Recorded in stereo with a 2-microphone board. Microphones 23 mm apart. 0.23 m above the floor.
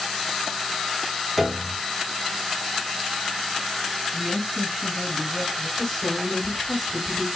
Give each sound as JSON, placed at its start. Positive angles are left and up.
{"t": 1.4, "sound": "a piano", "side_deg": -15, "distance_m": 0.6}
{"t": 4.1, "sound": "a woman speaking", "side_deg": -20, "distance_m": 2.0}
{"t": 5.8, "sound": "a woman speaking", "side_deg": 0, "distance_m": 1.7}